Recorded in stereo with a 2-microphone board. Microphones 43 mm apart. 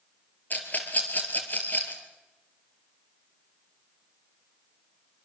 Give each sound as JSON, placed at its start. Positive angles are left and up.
{"t": 0.5, "sound": "a rattle", "side_deg": 45, "distance_m": 3.5}